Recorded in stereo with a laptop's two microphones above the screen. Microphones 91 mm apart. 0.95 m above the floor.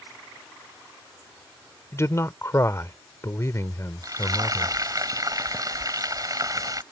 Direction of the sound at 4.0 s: 40° right (ahead or behind).